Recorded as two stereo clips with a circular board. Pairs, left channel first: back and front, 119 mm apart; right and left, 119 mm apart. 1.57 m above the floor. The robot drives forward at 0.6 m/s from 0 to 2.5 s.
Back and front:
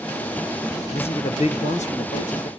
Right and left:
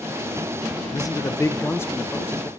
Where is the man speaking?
145° right, 0.7 m; by 2.5 s 165° right, 1.5 m.